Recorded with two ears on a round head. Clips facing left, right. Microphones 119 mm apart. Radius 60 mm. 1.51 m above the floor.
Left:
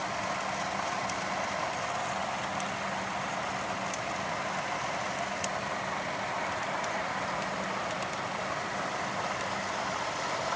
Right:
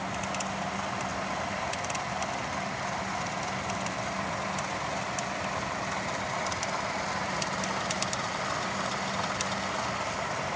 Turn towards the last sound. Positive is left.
No sound to turn to.